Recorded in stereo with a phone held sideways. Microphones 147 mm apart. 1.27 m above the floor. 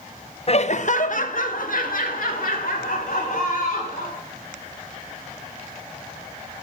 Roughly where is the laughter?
Left.